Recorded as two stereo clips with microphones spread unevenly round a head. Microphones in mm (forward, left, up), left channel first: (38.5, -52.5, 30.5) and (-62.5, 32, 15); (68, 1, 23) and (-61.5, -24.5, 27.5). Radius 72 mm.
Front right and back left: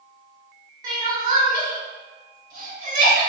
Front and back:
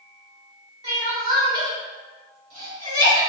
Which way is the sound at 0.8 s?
140° left.